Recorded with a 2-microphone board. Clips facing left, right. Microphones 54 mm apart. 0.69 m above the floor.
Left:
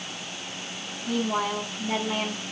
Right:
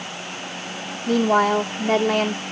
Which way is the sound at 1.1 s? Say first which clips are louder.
Right 9 dB; 55° right (ahead or behind).